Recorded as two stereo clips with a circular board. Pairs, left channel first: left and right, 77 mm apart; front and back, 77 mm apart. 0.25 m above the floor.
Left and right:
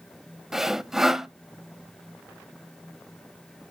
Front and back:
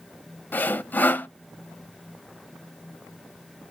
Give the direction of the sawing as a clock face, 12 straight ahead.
12 o'clock.